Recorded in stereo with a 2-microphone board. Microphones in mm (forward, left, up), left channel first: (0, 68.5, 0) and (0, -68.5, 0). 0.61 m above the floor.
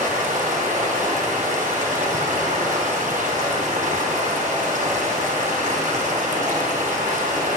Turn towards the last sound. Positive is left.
turn(degrees=-70)  # may be behind; listen again after turning